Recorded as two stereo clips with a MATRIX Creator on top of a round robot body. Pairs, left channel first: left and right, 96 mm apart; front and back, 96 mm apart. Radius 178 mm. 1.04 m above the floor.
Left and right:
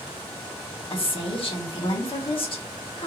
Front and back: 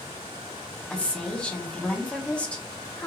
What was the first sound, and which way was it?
A woman speaking, 75° left.